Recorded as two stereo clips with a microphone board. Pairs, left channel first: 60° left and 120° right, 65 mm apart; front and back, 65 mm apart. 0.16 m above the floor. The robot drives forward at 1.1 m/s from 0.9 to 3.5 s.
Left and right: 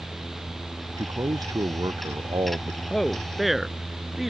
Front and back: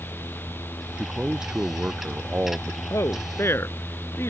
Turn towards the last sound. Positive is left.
turn(degrees=-35)